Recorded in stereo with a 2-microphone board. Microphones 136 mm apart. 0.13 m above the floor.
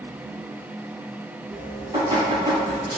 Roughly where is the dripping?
Right.